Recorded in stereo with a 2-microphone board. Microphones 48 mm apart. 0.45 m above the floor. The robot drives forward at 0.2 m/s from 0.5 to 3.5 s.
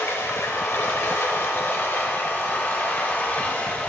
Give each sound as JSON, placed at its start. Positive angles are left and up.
{"t": 0.0, "sound": "running water", "side_deg": 70, "distance_m": 0.8}